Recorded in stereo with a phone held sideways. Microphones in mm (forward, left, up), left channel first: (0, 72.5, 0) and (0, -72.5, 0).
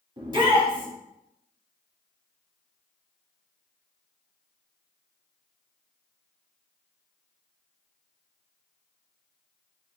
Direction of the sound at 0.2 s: 35° right (ahead or behind).